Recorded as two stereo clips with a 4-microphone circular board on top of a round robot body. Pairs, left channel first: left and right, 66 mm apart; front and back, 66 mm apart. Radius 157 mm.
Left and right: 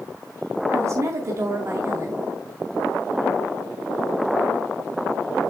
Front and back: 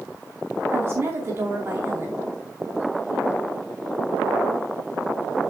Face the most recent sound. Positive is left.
turn(degrees=-130)